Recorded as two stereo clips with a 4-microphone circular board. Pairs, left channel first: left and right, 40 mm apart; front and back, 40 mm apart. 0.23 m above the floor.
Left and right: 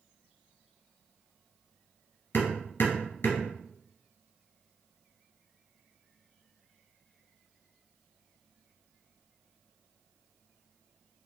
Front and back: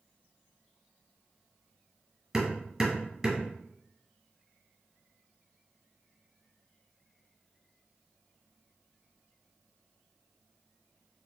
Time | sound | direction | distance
2.3 | hammering | 105° left | 1.3 m